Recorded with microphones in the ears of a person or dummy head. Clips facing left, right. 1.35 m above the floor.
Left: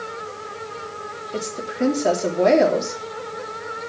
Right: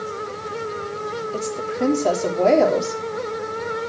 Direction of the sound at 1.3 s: 25° left (ahead or behind).